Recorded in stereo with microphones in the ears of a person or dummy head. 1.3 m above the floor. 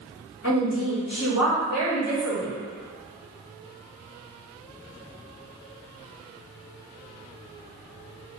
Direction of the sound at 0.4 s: 60° left (ahead or behind).